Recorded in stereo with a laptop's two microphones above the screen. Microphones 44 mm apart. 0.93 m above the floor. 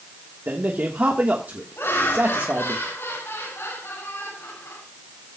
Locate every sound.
0.5 s a man speaking: 45° right (ahead or behind), 1.4 m
1.8 s laughter: 85° left, 6 m